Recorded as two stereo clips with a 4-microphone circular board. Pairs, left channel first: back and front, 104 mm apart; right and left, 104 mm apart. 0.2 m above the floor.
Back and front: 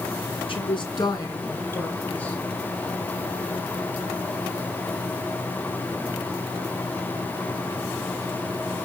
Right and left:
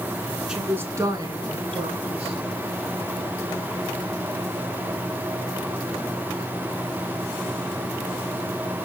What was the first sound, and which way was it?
A woman speaking, 170° left.